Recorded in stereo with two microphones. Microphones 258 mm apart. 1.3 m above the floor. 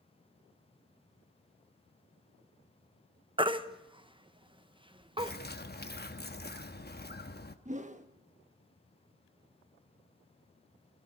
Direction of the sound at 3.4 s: 20° right (ahead or behind).